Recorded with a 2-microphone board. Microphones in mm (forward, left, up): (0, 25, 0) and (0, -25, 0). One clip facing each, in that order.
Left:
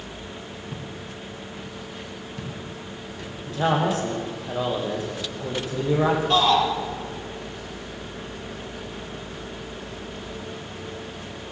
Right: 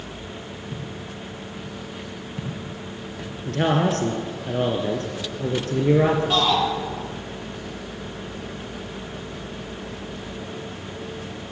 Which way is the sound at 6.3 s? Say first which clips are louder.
Left 2 dB; 5° right (ahead or behind).